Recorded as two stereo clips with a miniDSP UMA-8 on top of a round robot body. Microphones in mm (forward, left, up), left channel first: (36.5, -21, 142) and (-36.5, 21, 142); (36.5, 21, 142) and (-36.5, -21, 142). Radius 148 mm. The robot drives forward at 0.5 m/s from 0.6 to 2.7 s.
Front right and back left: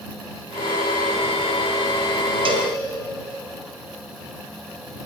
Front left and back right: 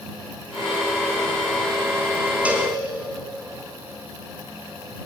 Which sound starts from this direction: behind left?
A cowbell, at 2.5 s.